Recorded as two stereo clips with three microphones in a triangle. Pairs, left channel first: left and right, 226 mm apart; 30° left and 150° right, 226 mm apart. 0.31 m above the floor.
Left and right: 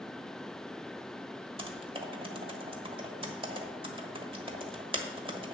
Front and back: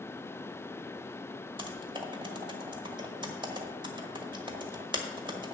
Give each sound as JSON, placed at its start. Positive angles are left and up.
{"t": 1.6, "sound": "typing on a keyboard", "azimuth_deg": -115, "distance_m": 1.3}